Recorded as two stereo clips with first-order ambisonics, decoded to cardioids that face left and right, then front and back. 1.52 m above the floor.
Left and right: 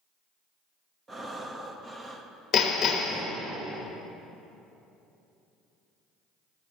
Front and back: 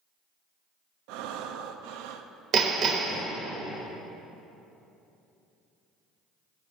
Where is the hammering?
140° left, 1.0 m.